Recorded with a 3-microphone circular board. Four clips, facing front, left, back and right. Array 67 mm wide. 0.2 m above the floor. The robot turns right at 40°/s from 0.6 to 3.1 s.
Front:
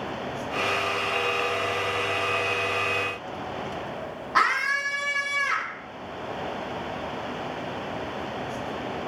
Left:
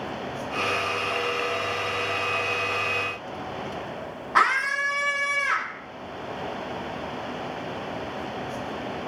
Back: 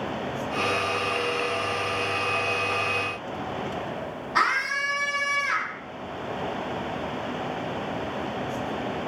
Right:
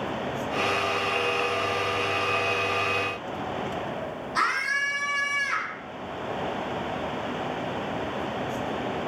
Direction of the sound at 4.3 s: 55° left.